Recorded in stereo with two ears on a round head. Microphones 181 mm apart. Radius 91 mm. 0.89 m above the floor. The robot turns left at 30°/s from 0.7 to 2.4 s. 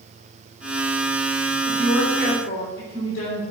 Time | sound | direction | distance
1.6 | a woman speaking | 75° left (ahead or behind) | 2.5 m